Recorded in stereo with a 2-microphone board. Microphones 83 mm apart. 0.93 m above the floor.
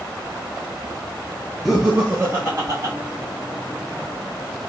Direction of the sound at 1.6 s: Centre (ahead or behind).